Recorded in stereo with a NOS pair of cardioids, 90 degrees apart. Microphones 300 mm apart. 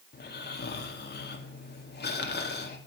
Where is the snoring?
35° left, 2.5 m.